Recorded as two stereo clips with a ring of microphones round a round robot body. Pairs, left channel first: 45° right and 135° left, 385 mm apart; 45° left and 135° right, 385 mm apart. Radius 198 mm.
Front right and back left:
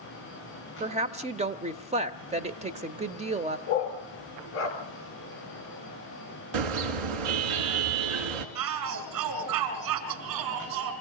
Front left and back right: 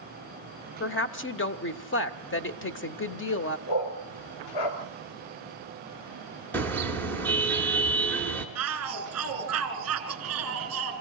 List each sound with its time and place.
0.8 s a woman speaking: 75° left, 1.0 m
3.7 s a dog barking: 15° left, 2 m
6.5 s a car horn: 130° left, 2.5 m
8.6 s a shout: 170° left, 3.5 m